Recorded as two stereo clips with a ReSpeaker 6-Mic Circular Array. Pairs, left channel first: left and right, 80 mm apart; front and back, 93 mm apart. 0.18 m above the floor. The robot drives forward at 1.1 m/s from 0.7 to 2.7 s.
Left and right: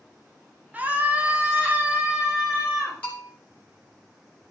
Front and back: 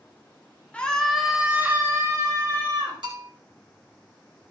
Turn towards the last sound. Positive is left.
turn(degrees=155)